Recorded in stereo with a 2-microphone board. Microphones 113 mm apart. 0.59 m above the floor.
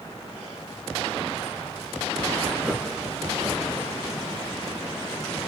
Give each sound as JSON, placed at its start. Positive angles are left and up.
{"t": 2.6, "sound": "laughter", "side_deg": -5, "distance_m": 0.6}